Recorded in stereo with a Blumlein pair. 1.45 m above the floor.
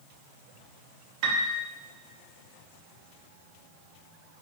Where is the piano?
40° right, 0.8 m.